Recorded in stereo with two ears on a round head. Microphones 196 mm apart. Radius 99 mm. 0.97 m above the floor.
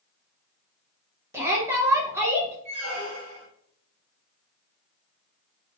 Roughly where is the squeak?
Right.